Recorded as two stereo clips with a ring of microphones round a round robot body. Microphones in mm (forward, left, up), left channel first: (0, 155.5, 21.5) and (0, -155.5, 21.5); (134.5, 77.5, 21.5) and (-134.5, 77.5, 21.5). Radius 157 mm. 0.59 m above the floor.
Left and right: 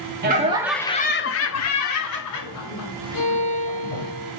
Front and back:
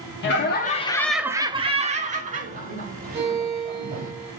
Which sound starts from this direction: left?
A violin, at 3.1 s.